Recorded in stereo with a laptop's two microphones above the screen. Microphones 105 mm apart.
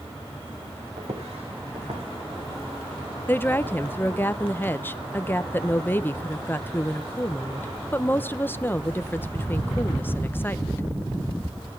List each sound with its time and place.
1.0 s footsteps: 75° right (ahead or behind), 3.5 m; by 3.0 s 80° right, 5 m
3.3 s a woman speaking: 20° left (ahead or behind), 0.6 m